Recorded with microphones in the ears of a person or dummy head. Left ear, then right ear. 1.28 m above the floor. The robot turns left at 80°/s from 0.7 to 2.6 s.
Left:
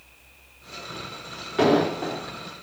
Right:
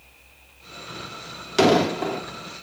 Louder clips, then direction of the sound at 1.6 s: Right 2 dB; 80° right.